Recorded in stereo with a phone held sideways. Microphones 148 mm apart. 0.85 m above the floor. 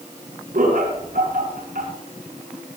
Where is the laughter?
75° right (ahead or behind), 6.5 m.